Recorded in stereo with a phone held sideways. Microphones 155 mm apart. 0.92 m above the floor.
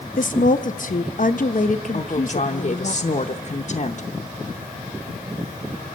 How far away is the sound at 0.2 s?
About 0.7 m.